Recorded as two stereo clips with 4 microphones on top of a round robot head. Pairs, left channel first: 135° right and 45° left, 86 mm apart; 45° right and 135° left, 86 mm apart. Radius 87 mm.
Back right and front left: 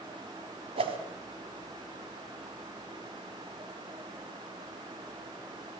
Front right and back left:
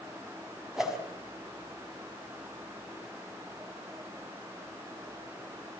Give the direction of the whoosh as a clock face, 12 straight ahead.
10 o'clock.